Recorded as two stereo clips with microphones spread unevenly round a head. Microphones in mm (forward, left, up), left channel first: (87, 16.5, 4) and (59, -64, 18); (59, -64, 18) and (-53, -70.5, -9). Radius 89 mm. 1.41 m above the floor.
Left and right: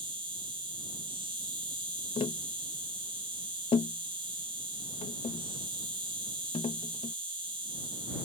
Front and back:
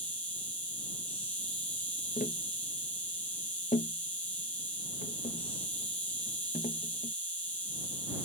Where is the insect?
75° right.